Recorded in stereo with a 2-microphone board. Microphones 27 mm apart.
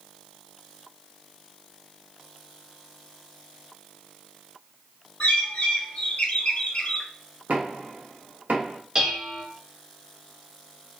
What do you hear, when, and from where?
5.2 s a bird: 55° left (ahead or behind), 0.6 m
7.5 s knocking: 80° right, 0.8 m
8.9 s dishes clattering: 30° right (ahead or behind), 1.0 m